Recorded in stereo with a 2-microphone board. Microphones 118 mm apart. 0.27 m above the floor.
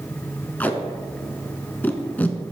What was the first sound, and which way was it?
Tape being pulled, 15° left (ahead or behind).